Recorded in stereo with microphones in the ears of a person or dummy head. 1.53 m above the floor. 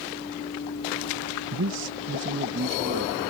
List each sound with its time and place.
1.5 s a man speaking: 75° right (ahead or behind); by 3.2 s 50° right (ahead or behind)